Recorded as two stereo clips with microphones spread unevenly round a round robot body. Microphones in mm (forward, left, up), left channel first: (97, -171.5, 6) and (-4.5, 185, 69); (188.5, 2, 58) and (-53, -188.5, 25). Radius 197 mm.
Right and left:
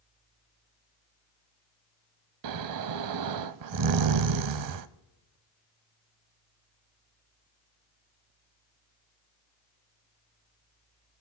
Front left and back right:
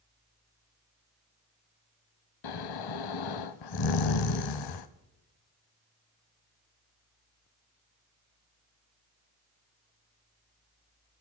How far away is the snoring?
About 0.6 m.